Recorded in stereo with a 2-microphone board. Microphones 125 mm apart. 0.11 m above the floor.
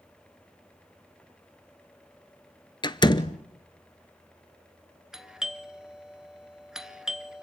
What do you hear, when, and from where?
2.8 s a door slam: 35° left (ahead or behind), 1.0 m
5.1 s a doorbell: 5° right (ahead or behind), 1.6 m